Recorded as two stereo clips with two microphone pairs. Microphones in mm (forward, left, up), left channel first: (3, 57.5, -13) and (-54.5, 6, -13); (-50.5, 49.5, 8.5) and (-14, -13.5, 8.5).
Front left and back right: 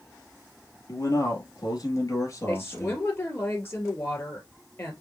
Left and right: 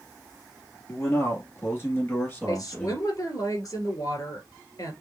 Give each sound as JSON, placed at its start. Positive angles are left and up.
{"t": 0.9, "sound": "a man speaking", "azimuth_deg": 80, "distance_m": 2.5}
{"t": 2.5, "sound": "a woman speaking", "azimuth_deg": 100, "distance_m": 2.5}